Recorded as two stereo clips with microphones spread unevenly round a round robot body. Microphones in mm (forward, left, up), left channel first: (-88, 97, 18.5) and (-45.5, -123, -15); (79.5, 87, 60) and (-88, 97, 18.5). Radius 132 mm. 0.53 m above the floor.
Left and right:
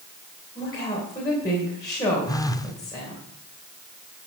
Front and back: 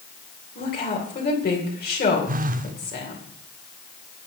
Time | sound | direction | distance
0.6 | a woman speaking | 20° left | 2.5 m
2.3 | a phone buzzing | straight behind | 0.8 m